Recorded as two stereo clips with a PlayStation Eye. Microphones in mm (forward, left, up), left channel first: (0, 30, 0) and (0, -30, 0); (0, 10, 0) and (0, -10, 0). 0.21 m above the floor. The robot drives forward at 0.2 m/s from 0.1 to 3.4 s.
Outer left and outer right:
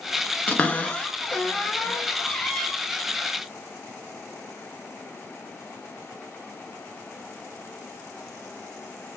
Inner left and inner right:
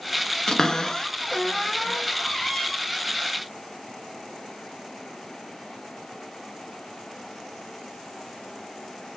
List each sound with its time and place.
0.5 s a cupboard door: 30° left (ahead or behind), 0.7 m; by 2.7 s 20° left (ahead or behind), 1.1 m